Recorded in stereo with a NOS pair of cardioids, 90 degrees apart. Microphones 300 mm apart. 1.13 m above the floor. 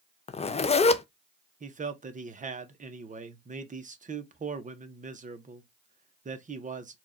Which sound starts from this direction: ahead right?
A man speaking, at 1.6 s.